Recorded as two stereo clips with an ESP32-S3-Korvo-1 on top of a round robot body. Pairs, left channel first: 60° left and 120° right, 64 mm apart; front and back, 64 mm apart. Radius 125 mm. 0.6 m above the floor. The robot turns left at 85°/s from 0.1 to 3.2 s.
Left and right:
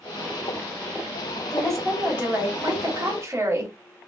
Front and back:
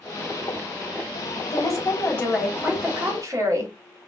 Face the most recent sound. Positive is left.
turn(degrees=-155)